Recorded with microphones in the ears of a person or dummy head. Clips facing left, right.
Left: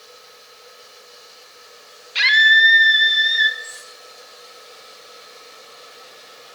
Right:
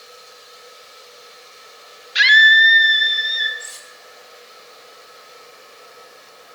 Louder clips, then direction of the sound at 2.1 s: Right 3 dB; 15° right (ahead or behind).